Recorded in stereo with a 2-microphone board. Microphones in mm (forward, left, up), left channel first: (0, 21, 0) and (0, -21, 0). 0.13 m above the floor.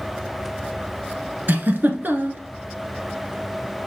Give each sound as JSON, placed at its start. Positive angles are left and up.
{"t": 1.5, "sound": "a giggle", "side_deg": -45, "distance_m": 1.2}